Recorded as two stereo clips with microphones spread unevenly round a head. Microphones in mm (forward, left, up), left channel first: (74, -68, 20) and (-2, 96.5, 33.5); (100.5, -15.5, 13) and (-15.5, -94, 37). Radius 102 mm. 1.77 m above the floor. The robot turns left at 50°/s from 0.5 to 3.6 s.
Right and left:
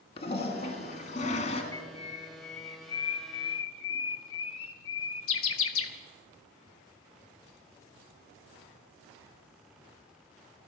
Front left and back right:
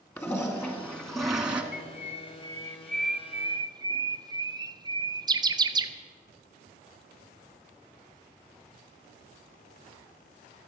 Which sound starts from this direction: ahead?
A bird, at 1.7 s.